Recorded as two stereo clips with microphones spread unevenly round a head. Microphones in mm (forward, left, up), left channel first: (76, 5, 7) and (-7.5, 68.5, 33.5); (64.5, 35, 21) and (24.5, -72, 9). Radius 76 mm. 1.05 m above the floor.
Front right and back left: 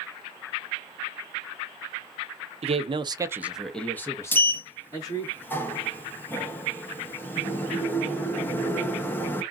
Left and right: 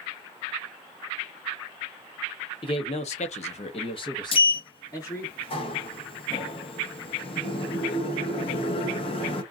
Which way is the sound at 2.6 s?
120° left.